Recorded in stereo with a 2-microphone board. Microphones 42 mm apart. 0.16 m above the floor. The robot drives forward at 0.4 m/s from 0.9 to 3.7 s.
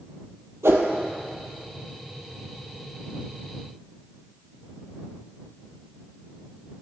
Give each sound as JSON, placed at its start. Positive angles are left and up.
{"t": 0.6, "sound": "a whoosh", "side_deg": -85, "distance_m": 0.7}